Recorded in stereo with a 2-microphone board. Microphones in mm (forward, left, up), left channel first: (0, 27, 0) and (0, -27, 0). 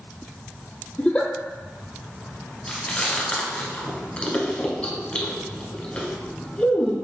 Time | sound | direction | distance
1.0 | a giggle | 20° left (ahead or behind) | 0.6 m
2.7 | chewing | 25° left (ahead or behind) | 1.1 m